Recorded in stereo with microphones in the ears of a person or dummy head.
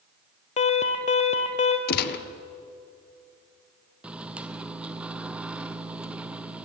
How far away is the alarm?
About 1.6 m.